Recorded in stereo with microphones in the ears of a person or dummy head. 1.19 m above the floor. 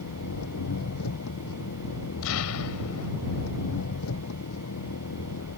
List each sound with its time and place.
0.0 s an engine running: 85° left
2.2 s an explosion: 85° left